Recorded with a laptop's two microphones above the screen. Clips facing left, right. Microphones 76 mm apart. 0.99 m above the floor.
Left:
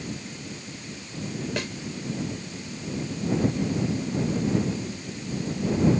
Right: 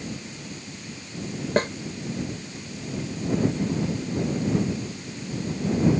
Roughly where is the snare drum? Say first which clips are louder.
Right 12 dB; right.